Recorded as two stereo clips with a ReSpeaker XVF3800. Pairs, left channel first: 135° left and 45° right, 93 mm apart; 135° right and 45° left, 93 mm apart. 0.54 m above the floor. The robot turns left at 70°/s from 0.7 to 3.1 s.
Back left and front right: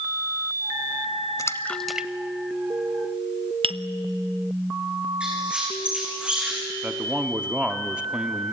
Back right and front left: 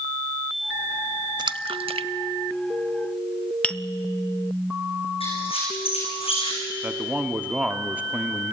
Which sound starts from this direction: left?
A splash, at 1.4 s.